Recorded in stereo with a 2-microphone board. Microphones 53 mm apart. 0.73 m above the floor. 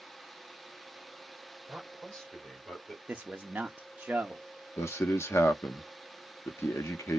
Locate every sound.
1.7 s a man speaking: centre (ahead or behind), 3 m; by 3.0 s 20° left (ahead or behind), 2.5 m
3.1 s a man speaking: 20° right (ahead or behind), 0.6 m
4.8 s a man speaking: 55° left (ahead or behind), 0.8 m